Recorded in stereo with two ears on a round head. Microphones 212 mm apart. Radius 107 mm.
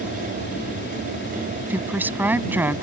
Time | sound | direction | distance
0.0 | an aircraft | 45° left (ahead or behind) | ?
1.7 | a woman speaking | 10° right (ahead or behind) | ?